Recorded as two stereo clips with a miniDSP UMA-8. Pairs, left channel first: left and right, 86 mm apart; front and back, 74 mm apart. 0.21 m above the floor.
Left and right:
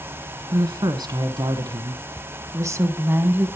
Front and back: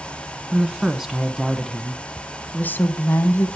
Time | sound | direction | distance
0.5 | a woman speaking | 105° right | 1.8 m